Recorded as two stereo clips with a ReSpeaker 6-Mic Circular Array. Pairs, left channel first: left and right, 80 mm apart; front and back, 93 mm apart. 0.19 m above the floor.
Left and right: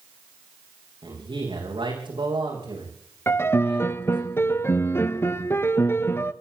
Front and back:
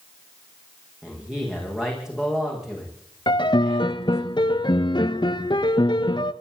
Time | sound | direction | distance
1.0 | a man speaking | 95° right | 10 m
3.3 | a piano | 30° left | 0.9 m